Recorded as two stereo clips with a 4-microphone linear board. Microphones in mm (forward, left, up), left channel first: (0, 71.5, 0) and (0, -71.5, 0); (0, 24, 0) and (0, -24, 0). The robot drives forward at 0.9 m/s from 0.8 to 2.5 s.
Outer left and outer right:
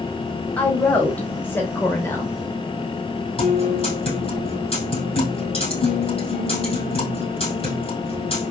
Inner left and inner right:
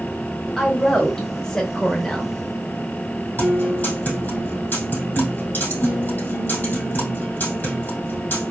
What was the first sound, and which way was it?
A woman speaking, 10° left (ahead or behind).